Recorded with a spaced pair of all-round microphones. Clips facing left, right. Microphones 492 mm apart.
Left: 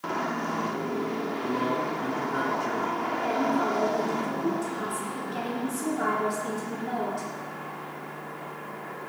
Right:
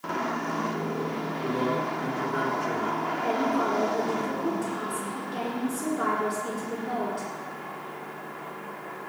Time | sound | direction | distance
1.4 | a man speaking | 15° left (ahead or behind) | 2.5 m
3.2 | a woman speaking | 10° left (ahead or behind) | 5.5 m